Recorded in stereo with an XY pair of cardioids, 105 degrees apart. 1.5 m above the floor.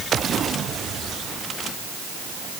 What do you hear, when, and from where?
Only background noise.